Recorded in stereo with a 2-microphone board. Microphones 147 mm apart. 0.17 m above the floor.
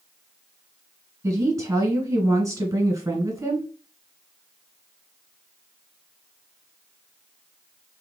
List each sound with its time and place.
1.2 s a woman speaking: 20° right (ahead or behind), 1.2 m